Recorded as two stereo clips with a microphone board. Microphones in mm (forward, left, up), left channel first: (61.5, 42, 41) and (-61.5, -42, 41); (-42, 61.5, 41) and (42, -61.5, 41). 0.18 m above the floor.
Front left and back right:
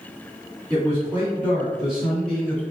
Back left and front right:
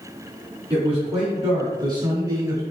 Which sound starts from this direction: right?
A man speaking, at 0.7 s.